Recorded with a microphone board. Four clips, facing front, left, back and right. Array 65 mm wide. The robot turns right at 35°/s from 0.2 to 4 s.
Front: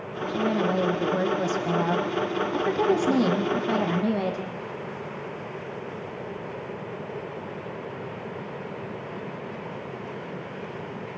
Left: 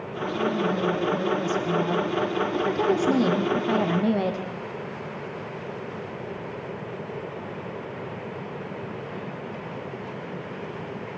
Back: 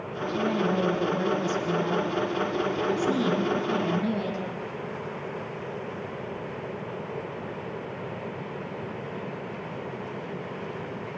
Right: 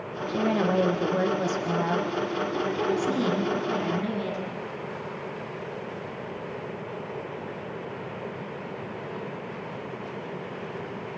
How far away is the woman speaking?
About 5.5 m.